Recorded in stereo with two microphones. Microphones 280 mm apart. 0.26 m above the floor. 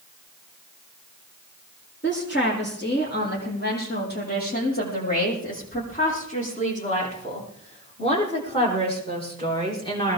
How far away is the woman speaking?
About 9.5 m.